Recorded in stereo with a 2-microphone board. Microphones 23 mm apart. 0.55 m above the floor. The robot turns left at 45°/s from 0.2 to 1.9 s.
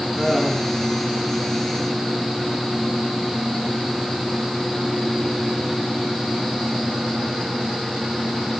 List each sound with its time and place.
0.2 s laughter: 15° right (ahead or behind), 8 m; by 0.8 s 15° left (ahead or behind), 8 m